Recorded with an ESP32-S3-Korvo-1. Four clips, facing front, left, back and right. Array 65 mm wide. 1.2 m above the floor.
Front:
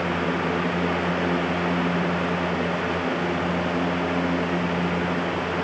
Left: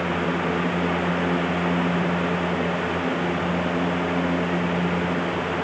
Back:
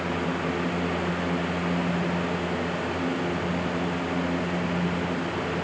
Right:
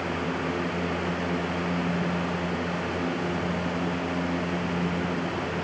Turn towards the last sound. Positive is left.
No sound to turn to.